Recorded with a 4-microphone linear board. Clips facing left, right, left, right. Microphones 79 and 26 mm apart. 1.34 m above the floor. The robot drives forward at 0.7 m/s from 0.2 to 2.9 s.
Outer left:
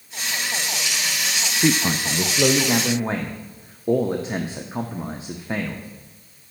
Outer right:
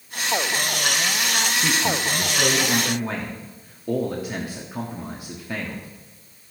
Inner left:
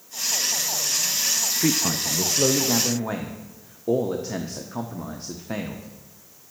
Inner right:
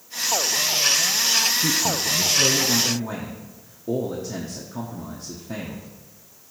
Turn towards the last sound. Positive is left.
turn(degrees=25)  # may be behind; listen again after turning